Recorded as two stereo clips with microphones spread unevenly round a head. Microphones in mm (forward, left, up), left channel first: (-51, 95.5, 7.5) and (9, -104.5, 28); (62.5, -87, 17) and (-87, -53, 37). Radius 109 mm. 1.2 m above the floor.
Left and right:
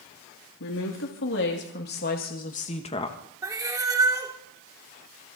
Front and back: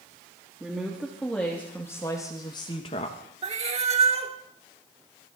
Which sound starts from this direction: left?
A woman speaking, at 0.6 s.